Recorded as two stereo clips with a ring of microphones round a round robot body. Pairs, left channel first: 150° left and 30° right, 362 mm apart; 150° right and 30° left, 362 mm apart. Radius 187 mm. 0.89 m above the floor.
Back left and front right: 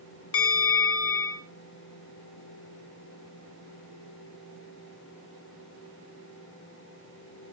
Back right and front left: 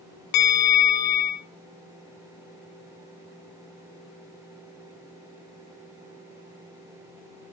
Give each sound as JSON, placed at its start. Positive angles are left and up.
{"t": 0.3, "sound": "a bell", "azimuth_deg": -165, "distance_m": 0.9}